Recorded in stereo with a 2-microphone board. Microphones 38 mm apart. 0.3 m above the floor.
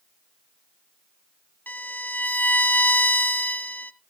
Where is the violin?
50° left (ahead or behind), 0.6 m.